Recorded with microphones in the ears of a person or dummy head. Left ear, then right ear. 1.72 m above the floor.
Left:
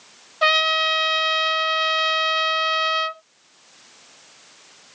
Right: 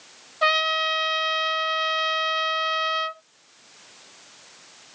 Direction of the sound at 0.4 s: 15° left (ahead or behind).